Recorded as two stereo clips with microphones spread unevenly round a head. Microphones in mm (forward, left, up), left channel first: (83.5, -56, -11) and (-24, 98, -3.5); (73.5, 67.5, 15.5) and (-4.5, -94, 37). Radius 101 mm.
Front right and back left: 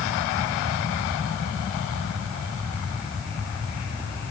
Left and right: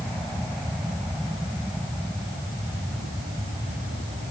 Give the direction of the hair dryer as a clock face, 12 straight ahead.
I don't hear a hair dryer.